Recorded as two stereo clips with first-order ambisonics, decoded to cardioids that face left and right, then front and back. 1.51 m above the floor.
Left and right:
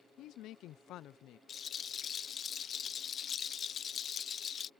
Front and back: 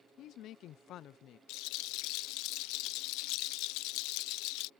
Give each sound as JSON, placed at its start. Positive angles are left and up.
{"t": 0.2, "sound": "a woman speaking", "azimuth_deg": 45}
{"t": 1.5, "sound": "a rattle", "azimuth_deg": 25}